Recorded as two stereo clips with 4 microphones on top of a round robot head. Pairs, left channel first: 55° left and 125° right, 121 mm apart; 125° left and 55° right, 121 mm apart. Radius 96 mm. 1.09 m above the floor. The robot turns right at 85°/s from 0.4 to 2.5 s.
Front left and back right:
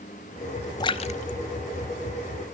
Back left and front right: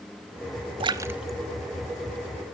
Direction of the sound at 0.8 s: 5° right.